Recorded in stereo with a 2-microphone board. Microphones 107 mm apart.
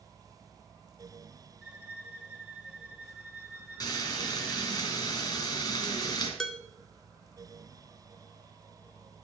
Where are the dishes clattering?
5° left (ahead or behind), 1.0 m.